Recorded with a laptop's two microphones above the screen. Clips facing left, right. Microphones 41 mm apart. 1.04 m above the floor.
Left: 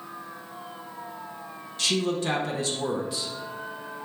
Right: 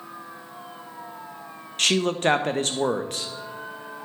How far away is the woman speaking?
About 0.9 m.